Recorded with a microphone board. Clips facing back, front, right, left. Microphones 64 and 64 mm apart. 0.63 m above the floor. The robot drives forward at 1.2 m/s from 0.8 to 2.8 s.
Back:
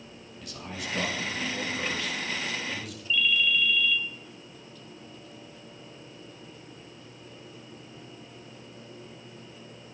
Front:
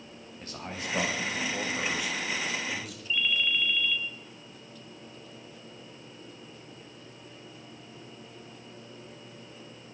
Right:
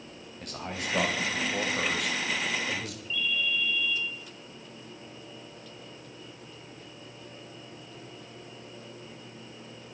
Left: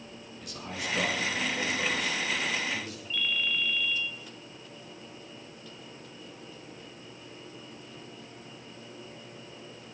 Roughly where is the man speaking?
Ahead right.